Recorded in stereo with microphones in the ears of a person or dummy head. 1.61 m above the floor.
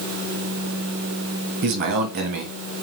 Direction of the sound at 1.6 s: 40° right (ahead or behind).